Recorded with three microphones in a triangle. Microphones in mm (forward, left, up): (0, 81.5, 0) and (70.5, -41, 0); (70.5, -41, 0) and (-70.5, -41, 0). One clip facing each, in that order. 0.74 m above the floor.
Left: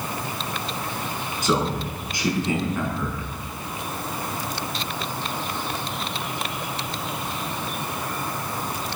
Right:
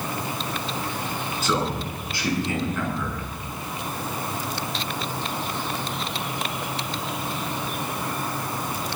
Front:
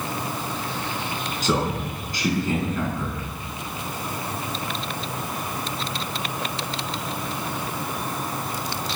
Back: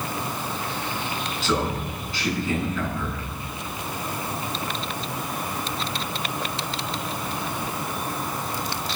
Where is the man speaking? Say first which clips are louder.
Left 3 dB, front 1 dB; 45° left, 6.5 m.